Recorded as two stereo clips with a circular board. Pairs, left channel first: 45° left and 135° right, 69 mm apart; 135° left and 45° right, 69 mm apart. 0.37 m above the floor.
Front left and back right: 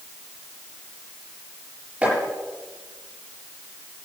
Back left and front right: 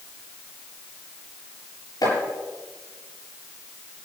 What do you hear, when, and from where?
2.0 s chopping: 150° left, 8.5 m